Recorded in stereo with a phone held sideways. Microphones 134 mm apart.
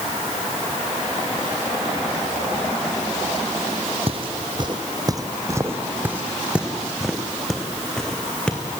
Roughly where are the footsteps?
Right.